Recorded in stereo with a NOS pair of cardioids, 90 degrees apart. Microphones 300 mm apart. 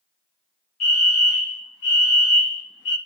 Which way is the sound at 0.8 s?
50° left.